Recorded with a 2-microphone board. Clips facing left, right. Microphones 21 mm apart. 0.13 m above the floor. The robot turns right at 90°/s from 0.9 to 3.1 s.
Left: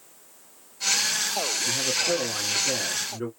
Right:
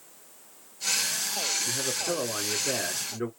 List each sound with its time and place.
1.6 s a man speaking: centre (ahead or behind), 1.4 m; by 3.3 s 15° right (ahead or behind), 1.4 m